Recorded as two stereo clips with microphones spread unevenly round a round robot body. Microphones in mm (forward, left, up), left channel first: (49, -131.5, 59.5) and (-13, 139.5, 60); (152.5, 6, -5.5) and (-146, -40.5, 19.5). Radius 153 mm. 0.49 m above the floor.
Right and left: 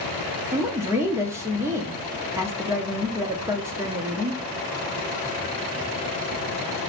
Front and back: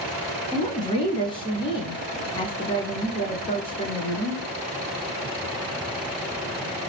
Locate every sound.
0.5 s a woman speaking: 35° left, 0.7 m